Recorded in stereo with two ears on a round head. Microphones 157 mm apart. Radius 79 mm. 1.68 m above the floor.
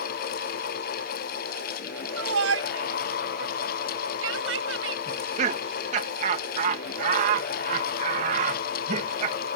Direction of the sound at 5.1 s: 45° right (ahead or behind).